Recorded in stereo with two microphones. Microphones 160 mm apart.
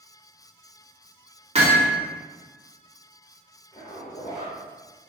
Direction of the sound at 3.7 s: 35° left (ahead or behind).